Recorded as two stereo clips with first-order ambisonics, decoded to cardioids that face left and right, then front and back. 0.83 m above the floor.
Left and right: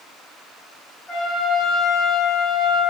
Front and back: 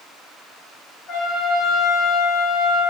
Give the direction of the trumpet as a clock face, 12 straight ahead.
11 o'clock.